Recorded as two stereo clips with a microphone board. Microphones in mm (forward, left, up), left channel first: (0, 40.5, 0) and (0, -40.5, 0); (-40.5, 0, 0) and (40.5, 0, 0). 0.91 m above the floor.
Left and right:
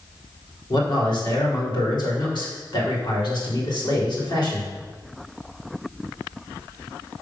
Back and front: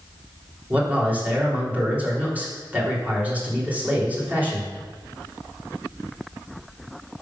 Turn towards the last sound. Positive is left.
turn(degrees=70)